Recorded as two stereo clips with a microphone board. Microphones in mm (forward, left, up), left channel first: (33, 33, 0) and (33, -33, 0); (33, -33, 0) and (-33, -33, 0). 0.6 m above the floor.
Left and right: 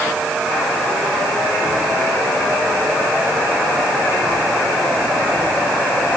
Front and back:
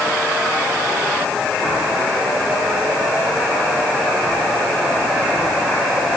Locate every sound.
Only background noise.